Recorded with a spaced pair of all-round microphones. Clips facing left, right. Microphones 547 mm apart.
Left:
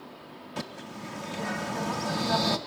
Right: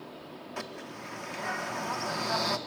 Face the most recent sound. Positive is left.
turn(degrees=55)  # may be behind; listen again after turning